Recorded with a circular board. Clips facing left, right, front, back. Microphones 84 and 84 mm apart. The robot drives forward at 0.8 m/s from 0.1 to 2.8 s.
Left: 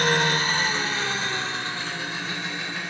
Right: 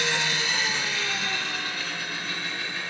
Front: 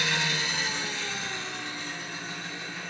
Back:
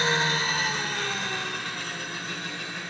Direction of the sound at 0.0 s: 130° left.